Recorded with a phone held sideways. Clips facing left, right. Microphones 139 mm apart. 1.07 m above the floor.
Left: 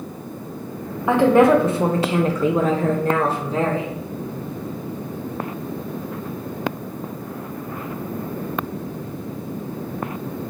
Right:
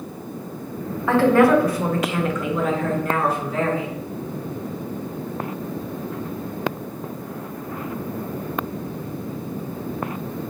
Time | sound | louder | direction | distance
1.1 | a woman speaking | left 1 dB | 15° left (ahead or behind) | 0.9 m